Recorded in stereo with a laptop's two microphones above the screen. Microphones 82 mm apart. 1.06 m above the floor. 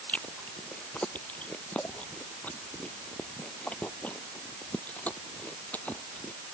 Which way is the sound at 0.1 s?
15° left (ahead or behind).